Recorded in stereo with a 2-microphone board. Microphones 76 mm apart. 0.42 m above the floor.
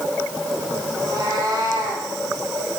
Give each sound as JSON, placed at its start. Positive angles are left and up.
{"t": 0.9, "sound": "a cat meowing", "side_deg": -60, "distance_m": 5.0}